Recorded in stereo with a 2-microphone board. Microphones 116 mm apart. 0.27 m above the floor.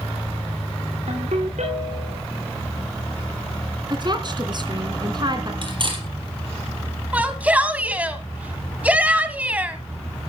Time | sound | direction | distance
1.1 | a ringtone | 85° right | 9 m
3.9 | a woman speaking | 40° right (ahead or behind) | 2.5 m
5.6 | cutlery clinking | 45° right (ahead or behind) | 4.5 m
7.1 | a shout | 15° right (ahead or behind) | 2.5 m